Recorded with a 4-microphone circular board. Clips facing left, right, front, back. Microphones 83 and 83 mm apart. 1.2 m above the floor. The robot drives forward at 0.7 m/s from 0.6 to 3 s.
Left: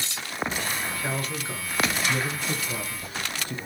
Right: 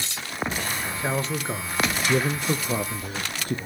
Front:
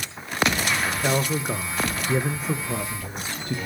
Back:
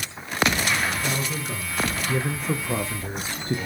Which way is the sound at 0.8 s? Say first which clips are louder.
Right 3 dB, front 3 dB; 25° right.